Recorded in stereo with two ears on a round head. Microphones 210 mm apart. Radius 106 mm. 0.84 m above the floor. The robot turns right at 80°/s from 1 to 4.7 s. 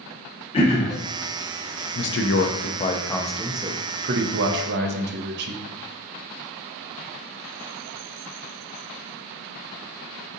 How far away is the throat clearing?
About 0.7 m.